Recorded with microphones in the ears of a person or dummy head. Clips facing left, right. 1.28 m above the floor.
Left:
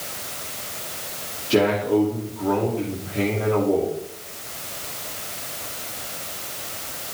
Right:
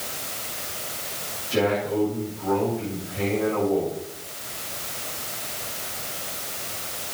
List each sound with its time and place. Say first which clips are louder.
1.5 s a man speaking: left 4 dB; 70° left (ahead or behind), 3 m